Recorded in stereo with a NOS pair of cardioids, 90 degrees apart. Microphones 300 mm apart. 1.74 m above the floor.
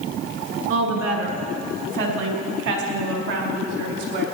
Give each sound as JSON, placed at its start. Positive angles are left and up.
{"t": 0.7, "sound": "a woman speaking", "azimuth_deg": -60, "distance_m": 3.5}